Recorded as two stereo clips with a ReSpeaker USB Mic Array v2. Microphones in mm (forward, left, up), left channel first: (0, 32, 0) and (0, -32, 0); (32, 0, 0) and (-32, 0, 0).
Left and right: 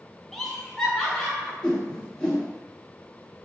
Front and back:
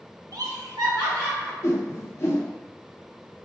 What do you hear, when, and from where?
0.3 s laughter: 175° left, 0.5 m
1.6 s a whoosh: 15° left, 0.9 m